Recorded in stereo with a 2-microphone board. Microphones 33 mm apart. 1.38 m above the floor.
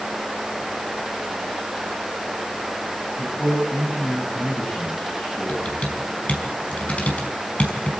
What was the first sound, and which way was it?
A man speaking, 40° left (ahead or behind).